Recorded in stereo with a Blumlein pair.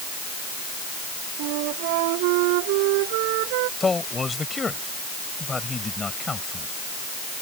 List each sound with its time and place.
1.4 s a flute: 45° right
3.8 s a man speaking: 10° left